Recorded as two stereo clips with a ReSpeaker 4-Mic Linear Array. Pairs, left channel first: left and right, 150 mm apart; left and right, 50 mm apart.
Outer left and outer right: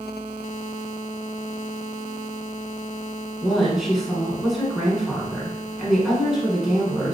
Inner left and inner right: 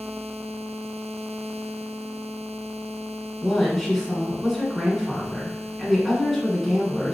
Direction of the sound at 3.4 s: Centre (ahead or behind).